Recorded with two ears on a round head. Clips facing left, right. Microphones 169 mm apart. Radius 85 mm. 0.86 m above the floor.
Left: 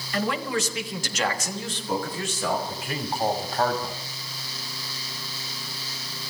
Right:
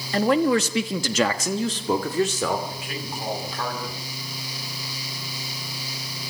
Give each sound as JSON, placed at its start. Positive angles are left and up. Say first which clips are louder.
{"t": 0.1, "sound": "a man speaking", "louder": "right 8 dB", "side_deg": -25, "distance_m": 1.4}
{"t": 2.7, "sound": "a man speaking", "louder": "left 3 dB", "side_deg": 30, "distance_m": 3.5}